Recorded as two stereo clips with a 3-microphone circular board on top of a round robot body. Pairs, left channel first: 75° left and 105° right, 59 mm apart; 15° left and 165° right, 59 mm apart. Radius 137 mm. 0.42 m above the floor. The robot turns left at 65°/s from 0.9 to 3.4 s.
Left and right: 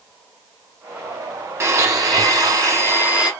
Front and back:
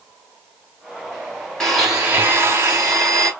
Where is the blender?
65° right, 1.7 m; by 3.3 s 175° right, 1.7 m.